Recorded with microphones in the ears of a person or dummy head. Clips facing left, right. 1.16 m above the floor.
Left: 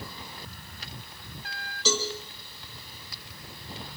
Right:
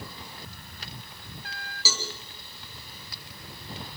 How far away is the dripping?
No dripping in this recording.